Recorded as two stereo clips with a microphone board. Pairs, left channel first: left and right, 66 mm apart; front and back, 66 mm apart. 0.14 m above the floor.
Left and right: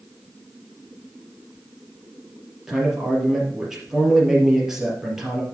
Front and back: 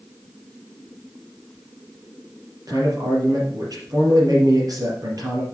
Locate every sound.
2.7 s a man speaking: 175° right, 4 m